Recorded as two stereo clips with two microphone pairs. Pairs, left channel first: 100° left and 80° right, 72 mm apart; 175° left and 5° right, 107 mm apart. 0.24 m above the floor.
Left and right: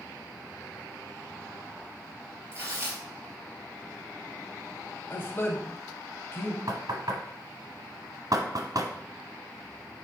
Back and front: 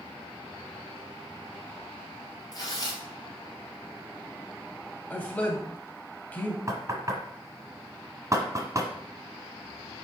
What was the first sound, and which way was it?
Tearing paper, 130° right.